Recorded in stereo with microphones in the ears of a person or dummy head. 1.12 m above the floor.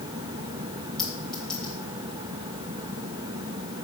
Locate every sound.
1.0 s a clink: 5° left (ahead or behind), 3.5 m